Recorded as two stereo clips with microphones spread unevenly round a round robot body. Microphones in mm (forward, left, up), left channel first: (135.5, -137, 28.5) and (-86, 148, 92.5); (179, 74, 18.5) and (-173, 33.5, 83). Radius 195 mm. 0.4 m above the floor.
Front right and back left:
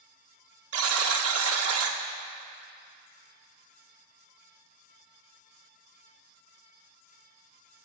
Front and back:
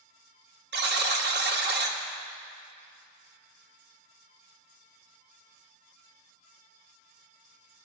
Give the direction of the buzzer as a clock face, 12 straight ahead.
7 o'clock.